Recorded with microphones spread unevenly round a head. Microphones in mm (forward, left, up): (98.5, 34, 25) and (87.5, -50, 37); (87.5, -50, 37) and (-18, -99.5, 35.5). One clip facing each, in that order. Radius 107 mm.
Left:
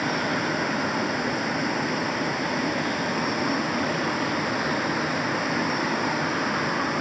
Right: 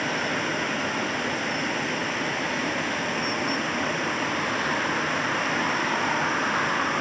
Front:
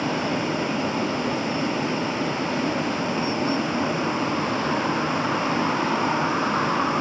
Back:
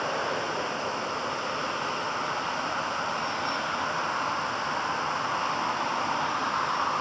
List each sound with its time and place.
0.0 s a vehicle: 5° left